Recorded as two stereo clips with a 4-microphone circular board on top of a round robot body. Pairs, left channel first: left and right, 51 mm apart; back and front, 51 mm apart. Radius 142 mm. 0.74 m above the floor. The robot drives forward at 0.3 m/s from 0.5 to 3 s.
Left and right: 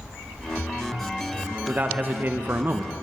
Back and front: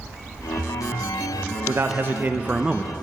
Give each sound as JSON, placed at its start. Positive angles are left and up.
{"t": 1.7, "sound": "a man speaking", "azimuth_deg": -30, "distance_m": 0.6}